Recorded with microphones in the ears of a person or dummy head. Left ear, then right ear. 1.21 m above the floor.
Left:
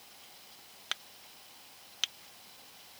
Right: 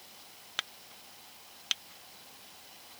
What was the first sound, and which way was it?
Only background noise.